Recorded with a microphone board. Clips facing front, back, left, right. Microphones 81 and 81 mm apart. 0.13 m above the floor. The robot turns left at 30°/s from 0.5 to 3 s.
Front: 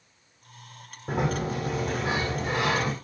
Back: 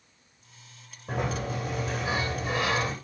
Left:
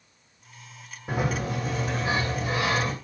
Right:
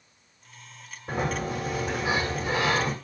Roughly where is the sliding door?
Ahead.